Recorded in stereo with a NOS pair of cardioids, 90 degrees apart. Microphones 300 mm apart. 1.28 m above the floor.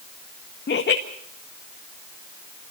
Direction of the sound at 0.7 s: 35° left.